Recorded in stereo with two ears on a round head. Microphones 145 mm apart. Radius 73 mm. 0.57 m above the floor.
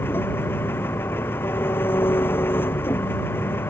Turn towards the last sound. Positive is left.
turn(degrees=10)  # may be behind; listen again after turning